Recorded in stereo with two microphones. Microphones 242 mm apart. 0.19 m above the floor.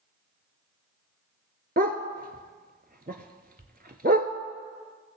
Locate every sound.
1.8 s a dog barking: 40° right (ahead or behind), 0.7 m